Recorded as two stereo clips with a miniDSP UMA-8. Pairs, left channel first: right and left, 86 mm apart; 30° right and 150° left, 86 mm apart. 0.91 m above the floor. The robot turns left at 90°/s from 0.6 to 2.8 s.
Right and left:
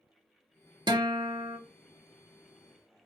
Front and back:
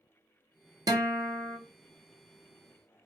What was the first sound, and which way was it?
A guitar, 115° left.